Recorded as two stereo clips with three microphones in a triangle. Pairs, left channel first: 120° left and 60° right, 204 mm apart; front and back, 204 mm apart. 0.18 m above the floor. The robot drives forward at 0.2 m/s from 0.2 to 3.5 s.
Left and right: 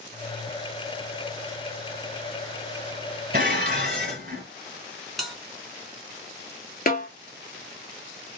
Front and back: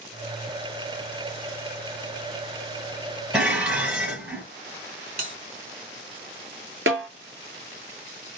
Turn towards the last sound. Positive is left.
turn(degrees=165)